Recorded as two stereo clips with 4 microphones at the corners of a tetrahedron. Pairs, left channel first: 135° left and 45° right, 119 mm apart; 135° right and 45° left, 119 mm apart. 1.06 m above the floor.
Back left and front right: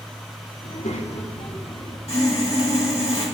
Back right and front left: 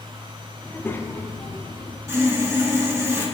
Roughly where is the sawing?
Left.